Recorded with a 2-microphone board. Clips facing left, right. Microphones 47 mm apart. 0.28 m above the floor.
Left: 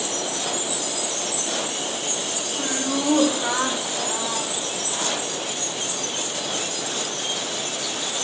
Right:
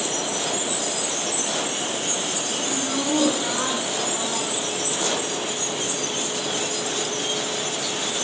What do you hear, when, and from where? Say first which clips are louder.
2.6 s laughter: left 3 dB; 40° left (ahead or behind), 2.5 m; by 5.2 s 15° left (ahead or behind), 2.5 m